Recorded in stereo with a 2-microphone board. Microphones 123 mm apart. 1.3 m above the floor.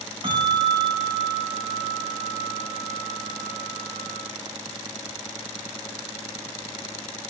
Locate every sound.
0.2 s a bell: 45° right (ahead or behind), 3 m